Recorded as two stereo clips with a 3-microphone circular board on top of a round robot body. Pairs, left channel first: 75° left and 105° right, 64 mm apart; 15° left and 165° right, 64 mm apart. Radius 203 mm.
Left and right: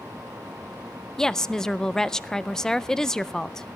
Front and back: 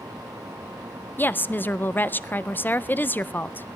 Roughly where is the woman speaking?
Ahead.